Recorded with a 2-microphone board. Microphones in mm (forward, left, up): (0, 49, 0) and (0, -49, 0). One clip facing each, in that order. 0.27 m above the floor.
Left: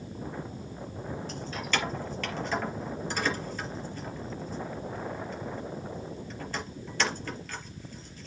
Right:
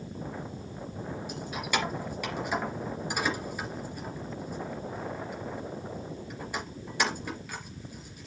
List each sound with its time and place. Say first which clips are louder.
1.3 s keys jangling: right 1 dB; 10° right (ahead or behind), 4 m